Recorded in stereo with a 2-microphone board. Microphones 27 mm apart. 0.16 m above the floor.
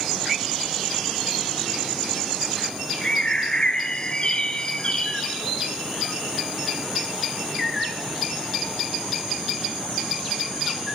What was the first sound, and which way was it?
A bird, 35° left (ahead or behind).